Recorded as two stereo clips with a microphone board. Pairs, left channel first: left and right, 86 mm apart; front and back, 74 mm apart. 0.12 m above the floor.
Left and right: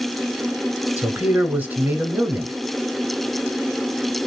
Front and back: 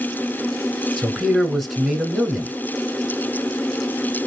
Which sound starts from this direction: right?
A man speaking, at 1.0 s.